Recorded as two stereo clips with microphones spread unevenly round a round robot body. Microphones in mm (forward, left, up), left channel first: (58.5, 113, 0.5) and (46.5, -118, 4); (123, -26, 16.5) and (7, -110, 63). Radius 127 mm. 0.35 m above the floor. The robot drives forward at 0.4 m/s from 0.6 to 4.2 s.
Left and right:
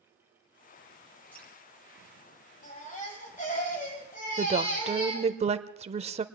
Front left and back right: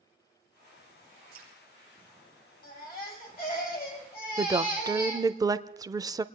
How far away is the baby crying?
About 6.5 m.